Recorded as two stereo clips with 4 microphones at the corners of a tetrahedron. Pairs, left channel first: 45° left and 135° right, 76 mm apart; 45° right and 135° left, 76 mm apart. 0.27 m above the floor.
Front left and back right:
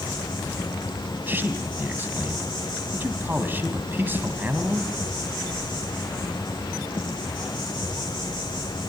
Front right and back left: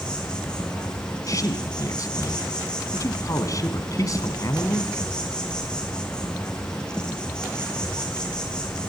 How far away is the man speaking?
About 1.9 m.